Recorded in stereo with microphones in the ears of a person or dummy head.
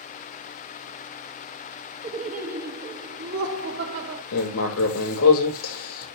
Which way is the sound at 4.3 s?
85° left.